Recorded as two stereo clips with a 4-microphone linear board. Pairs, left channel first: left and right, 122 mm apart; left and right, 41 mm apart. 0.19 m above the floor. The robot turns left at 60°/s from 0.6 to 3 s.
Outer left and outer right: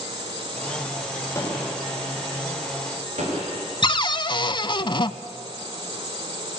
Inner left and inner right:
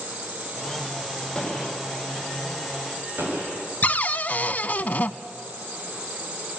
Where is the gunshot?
25° left (ahead or behind), 9 m; by 3.7 s 75° right (ahead or behind), 9 m.